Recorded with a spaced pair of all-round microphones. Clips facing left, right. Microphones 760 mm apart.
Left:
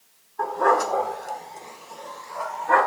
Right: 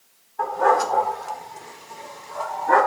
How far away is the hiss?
I don't hear a hiss.